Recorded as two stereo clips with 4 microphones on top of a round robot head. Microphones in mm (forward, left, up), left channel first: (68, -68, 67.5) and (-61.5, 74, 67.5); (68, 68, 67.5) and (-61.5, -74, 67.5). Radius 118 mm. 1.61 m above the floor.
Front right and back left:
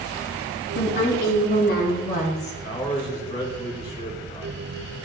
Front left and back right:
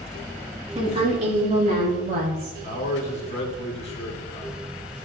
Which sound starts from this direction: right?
A woman speaking, at 0.8 s.